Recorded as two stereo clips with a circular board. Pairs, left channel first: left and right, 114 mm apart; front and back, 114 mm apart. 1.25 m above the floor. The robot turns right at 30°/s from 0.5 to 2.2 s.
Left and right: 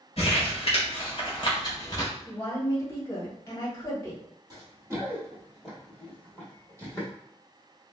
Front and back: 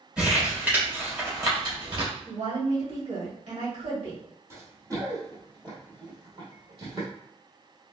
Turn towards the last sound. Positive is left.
turn(degrees=150)